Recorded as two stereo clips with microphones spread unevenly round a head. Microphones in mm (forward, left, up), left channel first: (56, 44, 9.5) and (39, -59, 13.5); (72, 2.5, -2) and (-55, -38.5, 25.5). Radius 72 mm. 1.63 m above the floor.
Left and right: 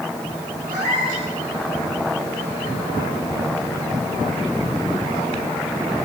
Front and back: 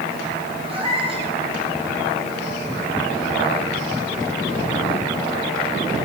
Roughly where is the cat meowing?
Behind right.